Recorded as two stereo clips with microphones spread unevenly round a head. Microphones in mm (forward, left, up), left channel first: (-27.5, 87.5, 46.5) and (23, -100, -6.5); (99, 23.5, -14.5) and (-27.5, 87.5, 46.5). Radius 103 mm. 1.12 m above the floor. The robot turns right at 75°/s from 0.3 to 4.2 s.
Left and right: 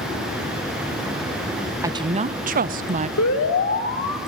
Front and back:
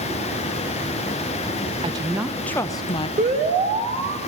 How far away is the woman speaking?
About 0.8 m.